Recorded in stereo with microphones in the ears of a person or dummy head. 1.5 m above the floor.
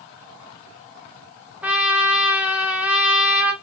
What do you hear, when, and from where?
1.6 s a trumpet: centre (ahead or behind), 0.8 m